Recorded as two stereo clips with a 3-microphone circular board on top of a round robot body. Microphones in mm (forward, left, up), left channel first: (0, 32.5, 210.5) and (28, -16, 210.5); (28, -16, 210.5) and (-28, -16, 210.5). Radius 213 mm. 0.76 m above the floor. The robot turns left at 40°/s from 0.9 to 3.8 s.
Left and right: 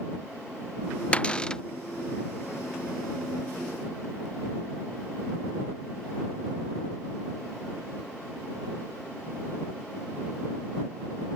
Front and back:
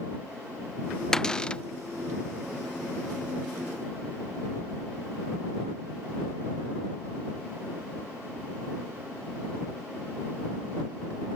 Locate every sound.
1.1 s a cupboard door: 75° left; by 1.6 s 55° left